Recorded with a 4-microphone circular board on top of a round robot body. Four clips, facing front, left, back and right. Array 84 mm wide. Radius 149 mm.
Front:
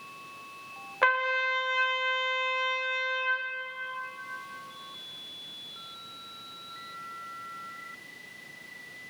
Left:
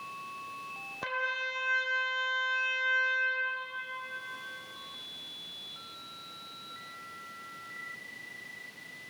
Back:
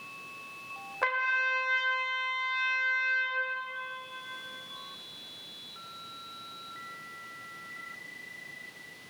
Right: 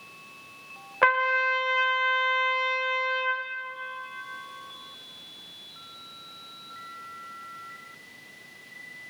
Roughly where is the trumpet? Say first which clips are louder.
Right 12 dB, front 3 dB; right.